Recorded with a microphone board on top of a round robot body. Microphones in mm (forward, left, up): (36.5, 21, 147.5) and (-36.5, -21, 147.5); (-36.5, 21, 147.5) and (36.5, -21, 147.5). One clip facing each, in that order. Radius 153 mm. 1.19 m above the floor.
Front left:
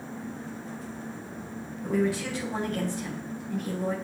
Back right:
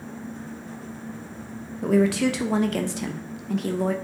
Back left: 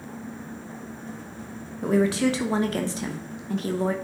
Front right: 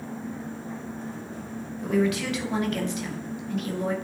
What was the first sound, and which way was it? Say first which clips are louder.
A woman speaking: back right 7 dB, back left 3 dB; 150° right.